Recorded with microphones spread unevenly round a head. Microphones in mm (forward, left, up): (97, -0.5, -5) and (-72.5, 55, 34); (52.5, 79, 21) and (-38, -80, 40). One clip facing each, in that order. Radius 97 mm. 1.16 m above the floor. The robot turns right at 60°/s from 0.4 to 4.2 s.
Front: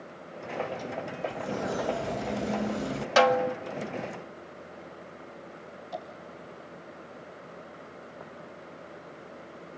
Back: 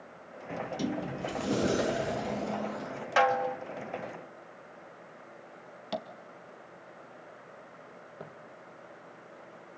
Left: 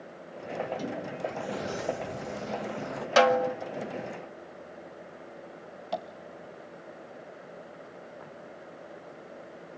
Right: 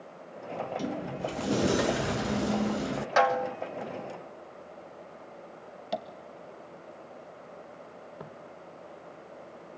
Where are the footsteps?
145° right, 3.5 m.